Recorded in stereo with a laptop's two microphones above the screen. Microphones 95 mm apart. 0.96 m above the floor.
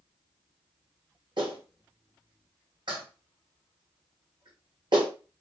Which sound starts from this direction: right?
A clap, at 1.4 s.